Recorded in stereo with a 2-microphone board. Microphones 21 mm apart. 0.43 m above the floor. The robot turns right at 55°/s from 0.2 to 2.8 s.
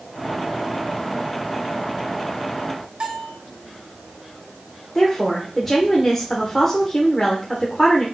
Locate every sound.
3.0 s a bell: 55° right (ahead or behind), 1.4 m
5.0 s a woman speaking: 5° left (ahead or behind), 1.1 m